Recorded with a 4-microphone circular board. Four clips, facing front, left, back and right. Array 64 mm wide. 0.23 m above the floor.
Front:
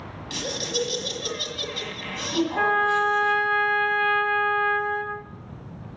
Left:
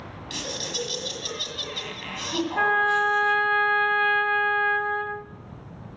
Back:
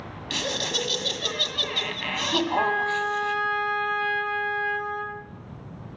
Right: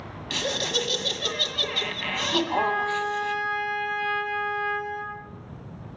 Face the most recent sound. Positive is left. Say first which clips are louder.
# left 8 dB, front 5 dB
turn(degrees=70)